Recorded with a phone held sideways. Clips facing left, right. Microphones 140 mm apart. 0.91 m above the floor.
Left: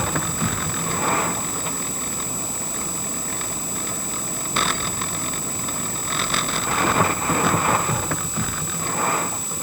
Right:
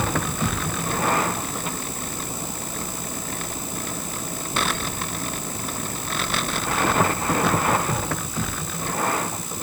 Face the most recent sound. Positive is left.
No sound to turn to.